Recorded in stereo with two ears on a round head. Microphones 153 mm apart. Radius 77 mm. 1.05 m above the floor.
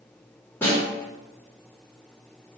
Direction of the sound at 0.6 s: 10° left (ahead or behind).